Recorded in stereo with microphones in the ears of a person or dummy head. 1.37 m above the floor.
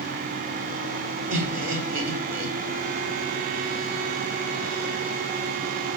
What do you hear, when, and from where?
1.3 s laughter: 80° right, 4 m